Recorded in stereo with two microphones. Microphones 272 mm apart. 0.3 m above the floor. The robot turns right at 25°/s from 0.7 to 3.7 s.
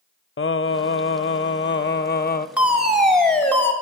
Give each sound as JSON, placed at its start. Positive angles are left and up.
{"t": 0.4, "sound": "singing", "azimuth_deg": 90, "distance_m": 0.5}
{"t": 2.6, "sound": "a fire alarm", "side_deg": -5, "distance_m": 2.0}